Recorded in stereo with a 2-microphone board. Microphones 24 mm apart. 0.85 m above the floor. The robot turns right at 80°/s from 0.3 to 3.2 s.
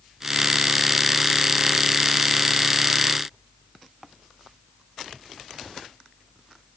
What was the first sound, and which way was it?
Only background noise.